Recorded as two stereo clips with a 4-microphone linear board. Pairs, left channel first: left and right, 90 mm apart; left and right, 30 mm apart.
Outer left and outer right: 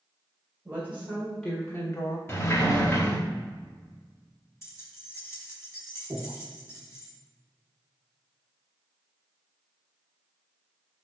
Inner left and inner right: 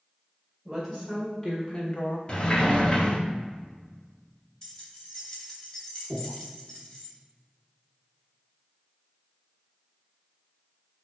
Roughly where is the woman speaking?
Centre.